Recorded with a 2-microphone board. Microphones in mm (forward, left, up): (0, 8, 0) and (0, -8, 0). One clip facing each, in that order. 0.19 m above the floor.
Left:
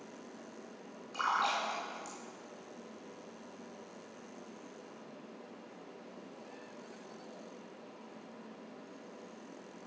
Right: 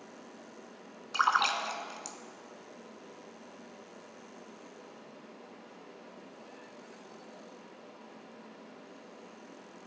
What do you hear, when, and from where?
1.1 s a splash: 50° right (ahead or behind), 1.5 m